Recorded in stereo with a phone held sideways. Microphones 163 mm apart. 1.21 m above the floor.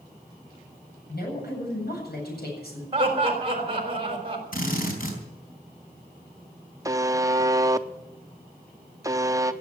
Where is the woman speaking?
70° left (ahead or behind), 8 m.